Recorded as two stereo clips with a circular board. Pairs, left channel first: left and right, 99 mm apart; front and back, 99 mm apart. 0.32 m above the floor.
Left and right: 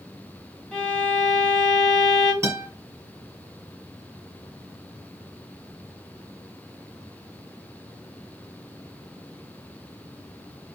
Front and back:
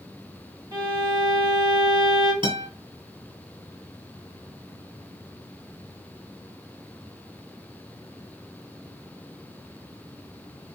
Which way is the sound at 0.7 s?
170° left.